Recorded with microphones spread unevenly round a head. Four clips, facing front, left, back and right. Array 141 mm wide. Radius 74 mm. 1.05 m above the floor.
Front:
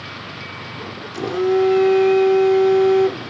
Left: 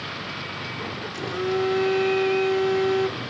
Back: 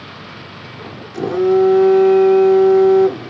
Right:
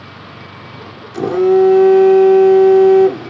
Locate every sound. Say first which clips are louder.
1.1 s a phone buzzing: right 15 dB, back 4 dB; 115° right